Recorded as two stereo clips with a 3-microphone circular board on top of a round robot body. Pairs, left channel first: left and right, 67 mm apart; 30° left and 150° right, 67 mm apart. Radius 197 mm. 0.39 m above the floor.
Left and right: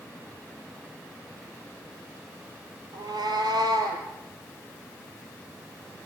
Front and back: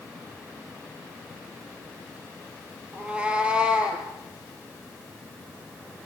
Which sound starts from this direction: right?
A cat meowing, at 2.9 s.